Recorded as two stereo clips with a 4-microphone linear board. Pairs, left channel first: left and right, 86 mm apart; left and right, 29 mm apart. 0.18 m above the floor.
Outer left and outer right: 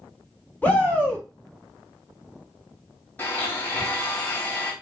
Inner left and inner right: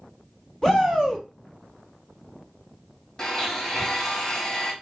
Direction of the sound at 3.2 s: 20° left (ahead or behind).